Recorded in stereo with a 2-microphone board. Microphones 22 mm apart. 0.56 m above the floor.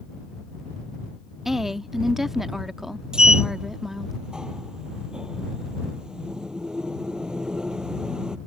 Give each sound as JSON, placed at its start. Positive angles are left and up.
{"t": 1.4, "sound": "a woman speaking", "side_deg": -25}
{"t": 3.1, "sound": "a sliding door", "side_deg": -45}